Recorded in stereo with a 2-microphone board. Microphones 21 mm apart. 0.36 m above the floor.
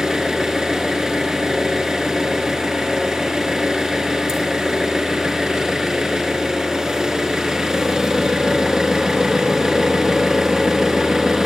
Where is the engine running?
25° right (ahead or behind), 3.5 m.